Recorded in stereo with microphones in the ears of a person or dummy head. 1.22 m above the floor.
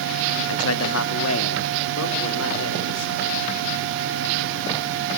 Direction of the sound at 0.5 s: 75° left (ahead or behind).